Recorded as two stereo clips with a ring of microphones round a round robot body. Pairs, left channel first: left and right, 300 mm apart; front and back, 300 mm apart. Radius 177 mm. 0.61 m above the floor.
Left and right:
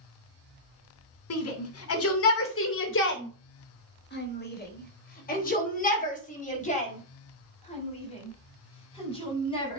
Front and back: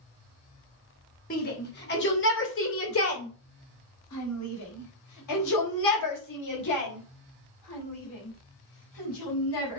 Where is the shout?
60° left, 2.5 m; by 9.8 s 15° left, 6 m.